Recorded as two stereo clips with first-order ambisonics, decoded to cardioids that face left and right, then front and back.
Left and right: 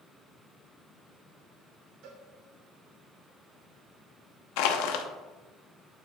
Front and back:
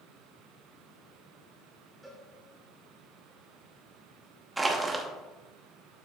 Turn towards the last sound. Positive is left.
turn(degrees=100)